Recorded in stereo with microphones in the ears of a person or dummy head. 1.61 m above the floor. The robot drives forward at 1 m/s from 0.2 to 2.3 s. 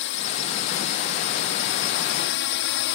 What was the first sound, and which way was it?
A drone, 65° left (ahead or behind).